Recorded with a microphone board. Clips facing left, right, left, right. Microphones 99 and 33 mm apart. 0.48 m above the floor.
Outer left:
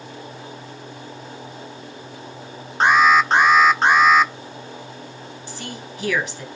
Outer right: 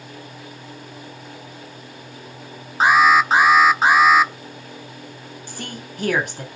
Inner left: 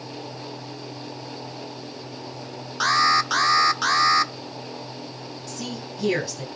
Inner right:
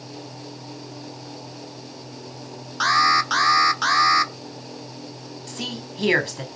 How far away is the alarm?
About 1.0 m.